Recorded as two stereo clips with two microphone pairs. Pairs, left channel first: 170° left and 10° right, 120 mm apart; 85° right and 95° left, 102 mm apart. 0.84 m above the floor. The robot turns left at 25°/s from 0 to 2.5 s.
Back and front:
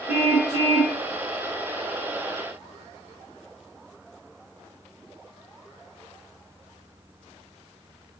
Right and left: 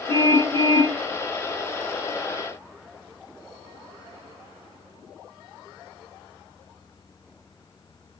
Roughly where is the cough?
I don't hear a cough.